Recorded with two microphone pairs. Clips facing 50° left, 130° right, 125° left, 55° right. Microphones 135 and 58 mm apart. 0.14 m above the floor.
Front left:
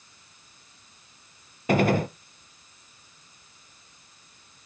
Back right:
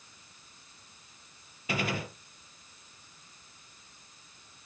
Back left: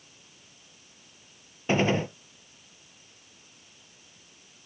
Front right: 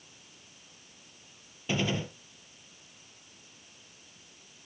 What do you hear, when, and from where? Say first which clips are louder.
1.7 s a gunshot: front left 12 dB, back left 7 dB; 85° left, 0.8 m